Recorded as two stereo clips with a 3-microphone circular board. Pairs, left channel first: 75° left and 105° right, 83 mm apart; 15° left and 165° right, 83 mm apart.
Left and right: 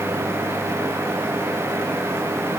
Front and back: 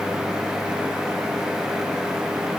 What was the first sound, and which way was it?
Only background noise.